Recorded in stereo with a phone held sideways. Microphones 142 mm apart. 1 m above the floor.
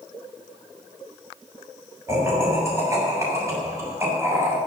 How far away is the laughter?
About 6.5 m.